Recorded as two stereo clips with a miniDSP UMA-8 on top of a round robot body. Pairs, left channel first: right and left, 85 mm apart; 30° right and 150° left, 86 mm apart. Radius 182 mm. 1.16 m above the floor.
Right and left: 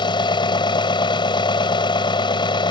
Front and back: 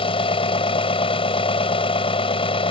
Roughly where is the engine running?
Ahead right.